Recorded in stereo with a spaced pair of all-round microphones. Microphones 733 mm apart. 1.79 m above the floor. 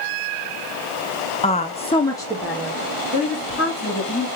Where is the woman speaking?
10° left (ahead or behind), 0.6 m; by 4.3 s centre (ahead or behind), 3.5 m.